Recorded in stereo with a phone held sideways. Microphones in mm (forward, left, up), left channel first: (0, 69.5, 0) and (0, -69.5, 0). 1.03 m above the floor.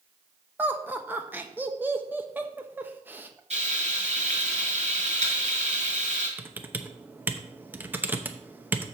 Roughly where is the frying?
Right.